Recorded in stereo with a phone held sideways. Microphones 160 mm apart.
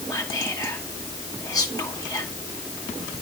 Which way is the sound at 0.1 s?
20° left (ahead or behind).